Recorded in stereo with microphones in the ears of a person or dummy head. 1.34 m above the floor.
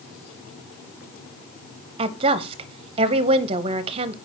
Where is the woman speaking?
30° right (ahead or behind), 0.7 m.